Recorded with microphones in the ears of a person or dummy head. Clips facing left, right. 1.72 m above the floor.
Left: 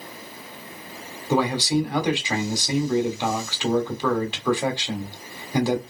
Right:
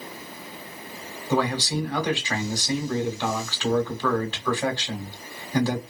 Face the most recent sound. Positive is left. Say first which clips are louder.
# left 3 dB
turn(degrees=15)  # may be behind; listen again after turning